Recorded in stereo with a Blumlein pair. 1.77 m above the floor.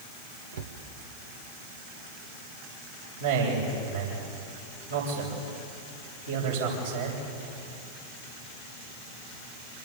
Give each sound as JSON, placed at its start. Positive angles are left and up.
{"t": 0.5, "sound": "a cupboard door", "azimuth_deg": -60, "distance_m": 1.5}
{"t": 3.2, "sound": "a man speaking", "azimuth_deg": -65, "distance_m": 8.0}